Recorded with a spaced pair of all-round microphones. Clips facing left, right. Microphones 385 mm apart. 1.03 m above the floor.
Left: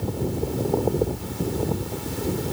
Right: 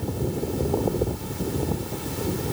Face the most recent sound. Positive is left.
No sound to turn to.